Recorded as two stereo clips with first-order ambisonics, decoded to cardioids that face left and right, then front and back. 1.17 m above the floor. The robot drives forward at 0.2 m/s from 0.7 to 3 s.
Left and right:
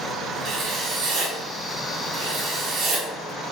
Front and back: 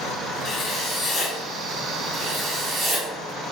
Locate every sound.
0.5 s writing: 60° right, 0.6 m; by 3.1 s 125° right, 0.6 m